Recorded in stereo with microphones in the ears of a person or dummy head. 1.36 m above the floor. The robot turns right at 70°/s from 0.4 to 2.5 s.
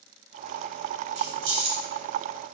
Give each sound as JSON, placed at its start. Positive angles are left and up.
{"t": 1.1, "sound": "keys jangling", "side_deg": -70, "distance_m": 1.5}